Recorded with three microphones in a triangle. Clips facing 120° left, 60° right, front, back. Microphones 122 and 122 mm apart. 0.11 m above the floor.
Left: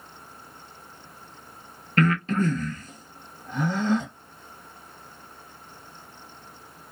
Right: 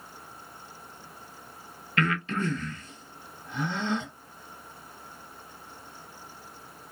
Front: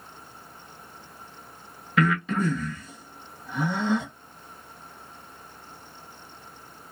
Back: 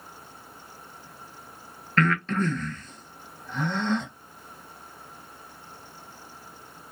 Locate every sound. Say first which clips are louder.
2.0 s breathing: left 6 dB, front 1 dB; 80° left, 0.7 m